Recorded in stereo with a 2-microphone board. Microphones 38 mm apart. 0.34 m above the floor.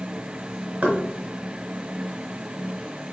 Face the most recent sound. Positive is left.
turn(degrees=-60)  # may be behind; listen again after turning